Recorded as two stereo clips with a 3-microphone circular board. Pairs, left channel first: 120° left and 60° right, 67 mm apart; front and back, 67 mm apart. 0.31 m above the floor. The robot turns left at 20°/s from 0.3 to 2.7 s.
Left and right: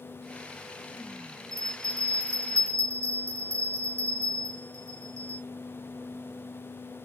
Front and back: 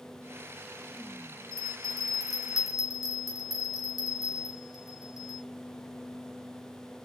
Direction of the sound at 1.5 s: 70° right.